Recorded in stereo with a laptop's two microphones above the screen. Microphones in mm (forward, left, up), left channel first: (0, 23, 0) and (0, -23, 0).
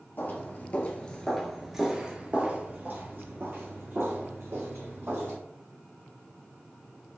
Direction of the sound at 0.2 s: 45° left (ahead or behind).